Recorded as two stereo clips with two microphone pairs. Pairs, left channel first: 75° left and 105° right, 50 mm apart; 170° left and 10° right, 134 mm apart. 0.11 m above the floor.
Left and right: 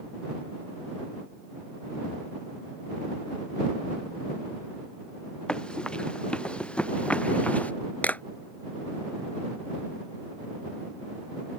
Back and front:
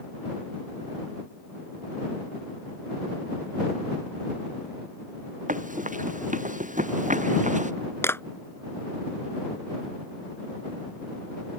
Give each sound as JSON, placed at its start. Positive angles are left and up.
{"t": 5.5, "sound": "running footsteps", "azimuth_deg": 5}
{"t": 8.0, "sound": "a clap", "azimuth_deg": 110}